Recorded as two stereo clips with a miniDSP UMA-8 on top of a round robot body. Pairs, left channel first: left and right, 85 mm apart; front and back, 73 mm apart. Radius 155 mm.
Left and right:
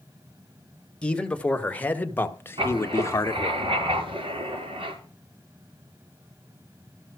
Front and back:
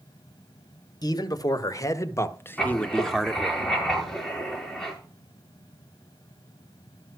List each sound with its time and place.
1.0 s a man speaking: 10° left, 2.5 m; by 3.6 s 115° left, 1.5 m
2.6 s writing: 85° right, 6.5 m